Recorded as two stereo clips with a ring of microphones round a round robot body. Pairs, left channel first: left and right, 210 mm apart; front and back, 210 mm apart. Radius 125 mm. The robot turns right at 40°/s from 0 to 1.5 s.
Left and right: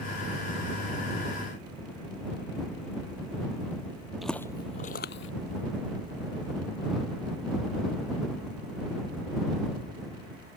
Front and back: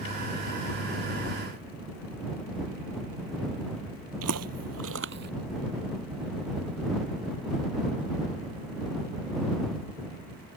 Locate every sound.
4.2 s footsteps: straight behind; by 5.3 s 130° left